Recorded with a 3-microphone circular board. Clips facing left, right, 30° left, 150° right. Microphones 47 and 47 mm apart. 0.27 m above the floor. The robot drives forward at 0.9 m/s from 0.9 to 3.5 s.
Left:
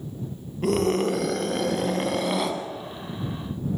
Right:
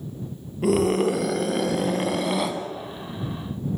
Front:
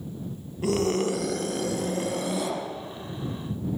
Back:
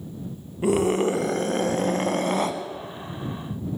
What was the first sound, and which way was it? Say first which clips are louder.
A scream: right 2 dB, back 4 dB; 170° right.